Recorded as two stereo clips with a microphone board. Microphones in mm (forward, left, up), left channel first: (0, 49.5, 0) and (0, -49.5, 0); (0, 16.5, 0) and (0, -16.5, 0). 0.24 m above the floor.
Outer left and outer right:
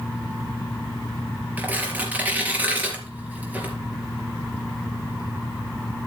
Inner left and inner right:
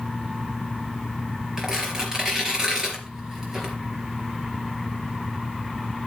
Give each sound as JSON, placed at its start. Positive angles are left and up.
{"t": 1.6, "sound": "tearing paper", "side_deg": -15, "distance_m": 3.5}